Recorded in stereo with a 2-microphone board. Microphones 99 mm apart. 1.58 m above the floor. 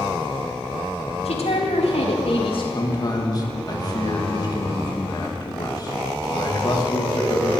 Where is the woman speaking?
80° left, 2.5 m; by 2.6 s 50° left (ahead or behind), 1.6 m.